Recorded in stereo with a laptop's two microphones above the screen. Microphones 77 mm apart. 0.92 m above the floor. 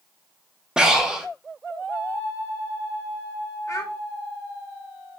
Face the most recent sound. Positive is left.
turn(degrees=45)  # may be behind; listen again after turning